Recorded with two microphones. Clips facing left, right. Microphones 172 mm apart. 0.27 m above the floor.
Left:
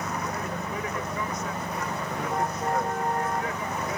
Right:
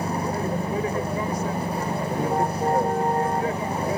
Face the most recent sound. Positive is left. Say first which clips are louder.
# right 6 dB
turn(degrees=-30)  # may be behind; listen again after turning